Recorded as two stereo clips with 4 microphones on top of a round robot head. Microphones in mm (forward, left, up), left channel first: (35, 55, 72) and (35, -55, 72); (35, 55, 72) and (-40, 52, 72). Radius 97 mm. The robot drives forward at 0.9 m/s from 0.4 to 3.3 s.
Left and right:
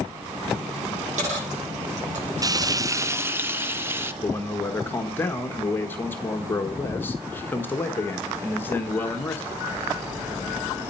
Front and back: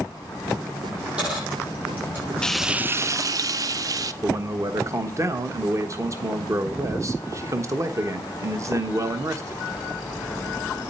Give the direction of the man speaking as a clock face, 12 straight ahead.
7 o'clock.